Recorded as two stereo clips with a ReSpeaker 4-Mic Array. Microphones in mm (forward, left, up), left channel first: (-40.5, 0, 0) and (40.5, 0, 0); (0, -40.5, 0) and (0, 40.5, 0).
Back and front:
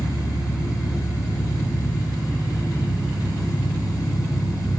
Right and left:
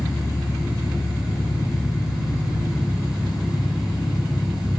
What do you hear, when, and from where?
0.0 s an engine running: 95° right, 4 m